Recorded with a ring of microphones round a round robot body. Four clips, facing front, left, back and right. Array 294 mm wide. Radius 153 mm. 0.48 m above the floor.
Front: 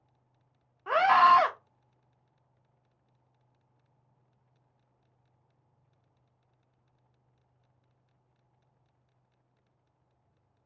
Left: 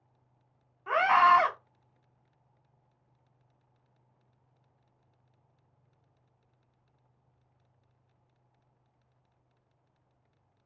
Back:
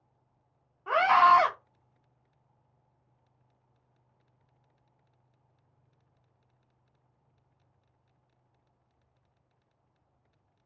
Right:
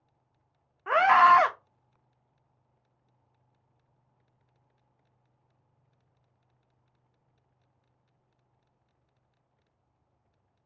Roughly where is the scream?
Ahead right.